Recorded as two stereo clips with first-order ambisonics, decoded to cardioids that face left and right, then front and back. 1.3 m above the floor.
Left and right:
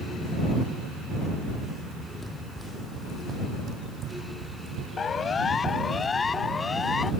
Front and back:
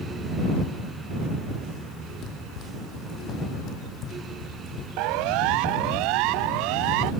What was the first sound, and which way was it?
Running footsteps, 15° left.